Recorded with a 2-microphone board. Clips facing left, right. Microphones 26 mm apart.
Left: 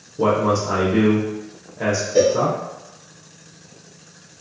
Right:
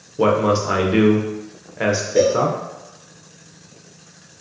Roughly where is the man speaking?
Right.